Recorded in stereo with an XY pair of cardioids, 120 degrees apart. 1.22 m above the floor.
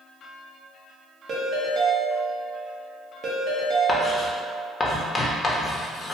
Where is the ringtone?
50° right, 0.7 m.